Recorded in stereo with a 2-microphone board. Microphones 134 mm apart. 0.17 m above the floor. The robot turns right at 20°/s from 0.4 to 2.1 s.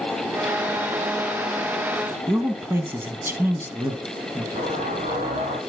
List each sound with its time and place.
2.3 s a man speaking: 15° right (ahead or behind), 1.3 m
4.5 s an explosion: 65° right (ahead or behind), 3.5 m